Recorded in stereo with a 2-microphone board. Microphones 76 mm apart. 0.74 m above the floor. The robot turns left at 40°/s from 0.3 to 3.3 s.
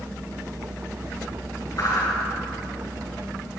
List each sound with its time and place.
1.8 s a whoosh: 55° left (ahead or behind), 6.5 m; by 2.1 s 40° left (ahead or behind), 6.5 m